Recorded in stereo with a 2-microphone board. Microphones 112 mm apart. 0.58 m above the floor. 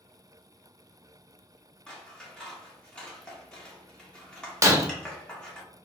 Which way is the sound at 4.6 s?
30° right (ahead or behind).